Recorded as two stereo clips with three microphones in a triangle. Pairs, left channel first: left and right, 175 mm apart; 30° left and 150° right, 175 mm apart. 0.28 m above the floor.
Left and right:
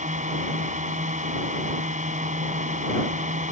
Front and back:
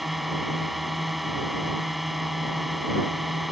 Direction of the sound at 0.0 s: 60° right.